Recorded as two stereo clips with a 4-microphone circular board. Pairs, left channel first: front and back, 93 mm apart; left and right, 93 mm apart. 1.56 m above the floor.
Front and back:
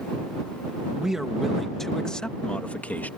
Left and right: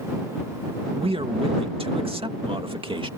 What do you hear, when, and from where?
0.9 s a man speaking: 95° right; by 3.1 s 70° right